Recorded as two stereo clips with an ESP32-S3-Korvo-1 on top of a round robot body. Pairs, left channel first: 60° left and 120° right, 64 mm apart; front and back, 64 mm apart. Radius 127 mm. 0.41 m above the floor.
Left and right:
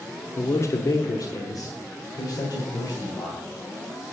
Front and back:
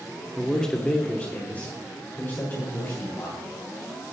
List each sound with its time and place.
0.4 s a man speaking: 85° left, 1.2 m; by 3.4 s 55° left, 3 m